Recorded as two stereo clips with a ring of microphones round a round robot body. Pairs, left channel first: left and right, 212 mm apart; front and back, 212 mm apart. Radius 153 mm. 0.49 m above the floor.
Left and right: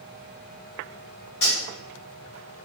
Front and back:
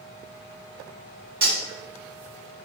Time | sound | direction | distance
1.4 | cutlery clinking | 135° left | 1.2 m